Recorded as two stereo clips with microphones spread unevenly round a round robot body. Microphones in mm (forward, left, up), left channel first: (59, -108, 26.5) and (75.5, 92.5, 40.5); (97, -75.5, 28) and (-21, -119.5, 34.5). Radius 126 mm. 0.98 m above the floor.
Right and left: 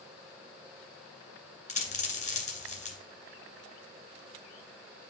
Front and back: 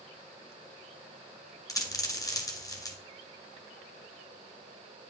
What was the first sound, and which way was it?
A dropped coin, 40° right.